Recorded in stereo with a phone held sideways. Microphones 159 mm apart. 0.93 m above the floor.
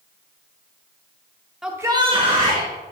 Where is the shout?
5° right (ahead or behind), 0.9 m; by 2.7 s 55° right (ahead or behind), 1.6 m.